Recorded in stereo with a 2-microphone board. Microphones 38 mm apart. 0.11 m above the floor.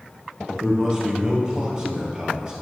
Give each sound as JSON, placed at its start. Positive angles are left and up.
{"t": 0.5, "sound": "a man speaking", "side_deg": -20, "distance_m": 3.0}